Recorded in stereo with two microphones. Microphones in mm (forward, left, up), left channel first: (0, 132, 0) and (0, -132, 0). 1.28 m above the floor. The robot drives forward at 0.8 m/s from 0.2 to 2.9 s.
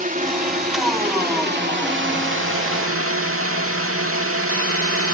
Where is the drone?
30° right (ahead or behind); by 5.1 s 55° right (ahead or behind).